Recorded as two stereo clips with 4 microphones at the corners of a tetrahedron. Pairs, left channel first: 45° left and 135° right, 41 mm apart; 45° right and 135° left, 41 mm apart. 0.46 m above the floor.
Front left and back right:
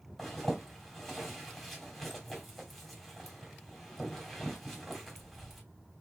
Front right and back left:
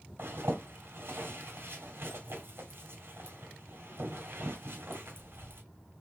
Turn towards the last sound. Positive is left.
turn(degrees=130)